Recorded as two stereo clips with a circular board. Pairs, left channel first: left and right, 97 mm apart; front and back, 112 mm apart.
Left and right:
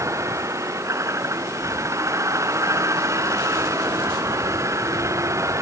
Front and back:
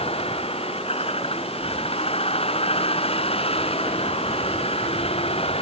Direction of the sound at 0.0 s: 30° right.